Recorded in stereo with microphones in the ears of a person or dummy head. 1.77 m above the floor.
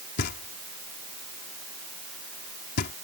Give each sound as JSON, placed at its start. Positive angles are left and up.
{"t": 0.2, "sound": "knocking", "side_deg": 55}